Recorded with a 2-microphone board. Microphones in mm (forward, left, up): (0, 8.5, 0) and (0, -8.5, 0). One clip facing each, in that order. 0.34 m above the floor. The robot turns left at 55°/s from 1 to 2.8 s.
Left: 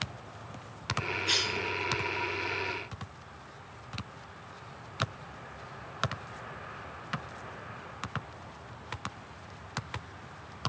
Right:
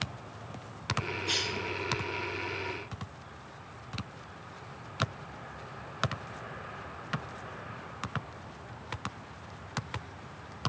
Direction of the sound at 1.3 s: 20° left (ahead or behind).